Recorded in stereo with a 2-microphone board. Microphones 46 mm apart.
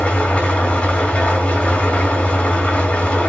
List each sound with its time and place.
0.0 s an engine running: 25° left (ahead or behind), 3 m